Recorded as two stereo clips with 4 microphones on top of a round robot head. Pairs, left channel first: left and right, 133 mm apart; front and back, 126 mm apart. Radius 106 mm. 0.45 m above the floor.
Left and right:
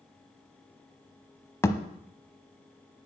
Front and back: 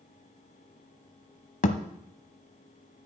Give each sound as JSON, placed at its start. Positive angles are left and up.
{"t": 1.6, "sound": "a thud", "azimuth_deg": 20, "distance_m": 0.8}